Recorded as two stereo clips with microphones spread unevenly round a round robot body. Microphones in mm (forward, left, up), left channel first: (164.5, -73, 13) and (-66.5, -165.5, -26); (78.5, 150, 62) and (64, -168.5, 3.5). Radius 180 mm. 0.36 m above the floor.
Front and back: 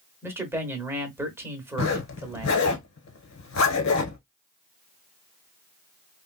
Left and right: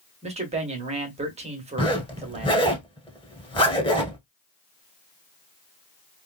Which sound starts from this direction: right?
A man speaking, at 0.2 s.